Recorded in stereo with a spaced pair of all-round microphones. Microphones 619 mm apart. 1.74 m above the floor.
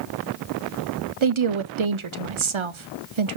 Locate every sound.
1.2 s a woman speaking: 50° right (ahead or behind), 0.7 m